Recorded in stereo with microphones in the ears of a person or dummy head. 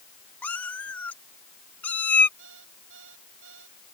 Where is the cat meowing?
10° left (ahead or behind).